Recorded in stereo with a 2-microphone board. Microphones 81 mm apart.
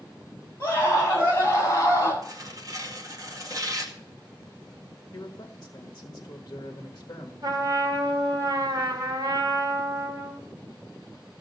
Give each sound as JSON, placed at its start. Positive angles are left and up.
{"t": 0.6, "sound": "a scream", "side_deg": 30, "distance_m": 7.0}
{"t": 2.2, "sound": "tearing paper", "side_deg": -45, "distance_m": 2.0}
{"t": 5.1, "sound": "a man speaking", "side_deg": 45, "distance_m": 1.6}
{"t": 7.4, "sound": "a trumpet", "side_deg": -50, "distance_m": 2.5}